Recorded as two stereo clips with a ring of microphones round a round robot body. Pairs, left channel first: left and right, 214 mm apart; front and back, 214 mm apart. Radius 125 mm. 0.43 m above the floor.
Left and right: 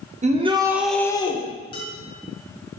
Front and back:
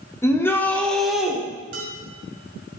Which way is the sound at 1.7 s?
155° left.